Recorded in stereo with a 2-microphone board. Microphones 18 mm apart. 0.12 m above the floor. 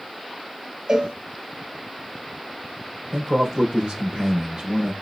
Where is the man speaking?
55° right (ahead or behind), 2.5 m.